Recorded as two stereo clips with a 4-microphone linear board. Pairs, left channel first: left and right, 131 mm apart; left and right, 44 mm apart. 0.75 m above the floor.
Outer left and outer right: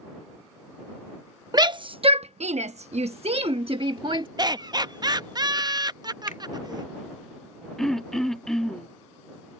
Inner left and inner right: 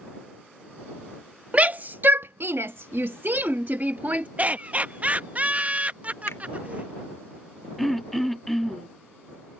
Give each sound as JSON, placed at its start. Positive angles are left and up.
{"t": 1.5, "sound": "a shout", "side_deg": -30}
{"t": 4.4, "sound": "laughter", "side_deg": -30}
{"t": 6.3, "sound": "a finger snap", "side_deg": 75}
{"t": 7.8, "sound": "throat clearing", "side_deg": 5}